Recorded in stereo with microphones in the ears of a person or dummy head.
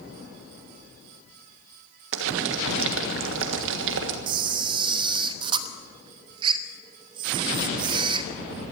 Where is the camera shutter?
25° right (ahead or behind), 0.9 m.